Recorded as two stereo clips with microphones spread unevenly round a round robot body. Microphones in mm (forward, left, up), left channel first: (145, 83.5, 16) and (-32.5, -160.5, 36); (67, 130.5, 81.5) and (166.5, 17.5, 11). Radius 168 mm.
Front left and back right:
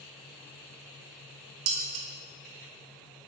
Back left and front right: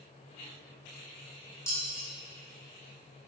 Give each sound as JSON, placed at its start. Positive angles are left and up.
{"t": 1.7, "sound": "dishes clattering", "azimuth_deg": -140, "distance_m": 1.2}